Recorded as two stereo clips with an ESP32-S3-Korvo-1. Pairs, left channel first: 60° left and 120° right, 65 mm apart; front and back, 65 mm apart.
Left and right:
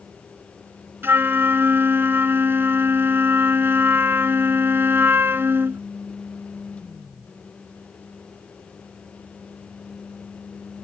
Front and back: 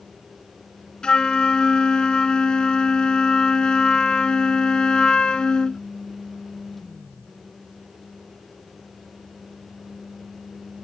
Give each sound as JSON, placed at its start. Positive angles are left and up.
{"t": 1.0, "sound": "a flute", "azimuth_deg": -75}